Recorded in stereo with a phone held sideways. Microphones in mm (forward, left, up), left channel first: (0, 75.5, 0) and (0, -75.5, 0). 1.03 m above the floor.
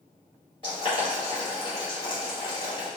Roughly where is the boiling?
Left.